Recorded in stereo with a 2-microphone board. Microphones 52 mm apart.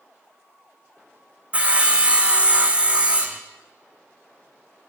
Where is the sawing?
25° right (ahead or behind), 1.2 m.